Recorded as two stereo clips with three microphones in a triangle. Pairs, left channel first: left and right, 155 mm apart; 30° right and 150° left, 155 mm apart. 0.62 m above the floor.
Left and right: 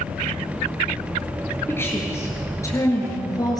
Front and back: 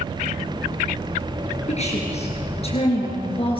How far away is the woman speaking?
About 8.5 m.